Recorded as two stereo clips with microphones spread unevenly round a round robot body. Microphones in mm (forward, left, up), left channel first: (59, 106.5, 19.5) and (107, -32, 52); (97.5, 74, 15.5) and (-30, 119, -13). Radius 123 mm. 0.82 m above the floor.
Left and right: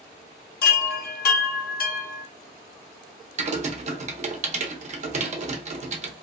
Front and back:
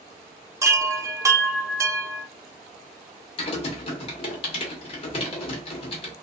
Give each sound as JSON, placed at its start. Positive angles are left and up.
{"t": 0.6, "sound": "a chime", "azimuth_deg": 85, "distance_m": 0.6}
{"t": 3.4, "sound": "typing on a keyboard", "azimuth_deg": -55, "distance_m": 0.7}